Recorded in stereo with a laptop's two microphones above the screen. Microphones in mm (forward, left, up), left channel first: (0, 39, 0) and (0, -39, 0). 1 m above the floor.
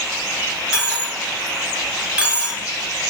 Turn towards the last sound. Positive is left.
turn(degrees=-15)  # may be behind; listen again after turning